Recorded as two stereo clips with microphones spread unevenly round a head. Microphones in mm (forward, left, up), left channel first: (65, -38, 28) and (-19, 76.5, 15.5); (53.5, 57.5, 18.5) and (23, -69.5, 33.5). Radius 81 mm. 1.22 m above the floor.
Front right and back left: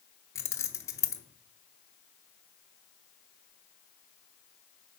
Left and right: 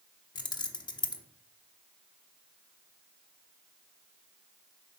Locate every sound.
0.3 s keys jangling: 20° left, 0.9 m